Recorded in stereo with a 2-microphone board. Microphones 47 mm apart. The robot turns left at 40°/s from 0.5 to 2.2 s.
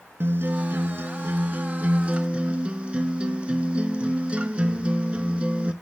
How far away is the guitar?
About 0.6 m.